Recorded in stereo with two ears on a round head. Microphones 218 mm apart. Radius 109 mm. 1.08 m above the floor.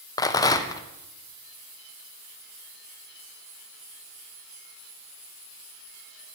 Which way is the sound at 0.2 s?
15° left (ahead or behind).